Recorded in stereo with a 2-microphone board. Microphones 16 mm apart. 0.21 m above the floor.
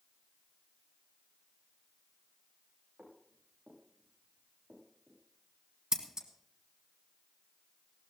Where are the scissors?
45° right (ahead or behind), 1.6 m.